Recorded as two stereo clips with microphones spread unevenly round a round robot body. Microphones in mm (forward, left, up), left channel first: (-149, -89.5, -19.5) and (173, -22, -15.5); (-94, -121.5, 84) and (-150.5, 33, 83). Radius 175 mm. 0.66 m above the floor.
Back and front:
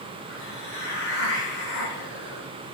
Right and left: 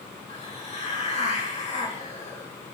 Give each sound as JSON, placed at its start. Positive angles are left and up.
{"t": 0.3, "sound": "a hiss", "azimuth_deg": -115, "distance_m": 2.5}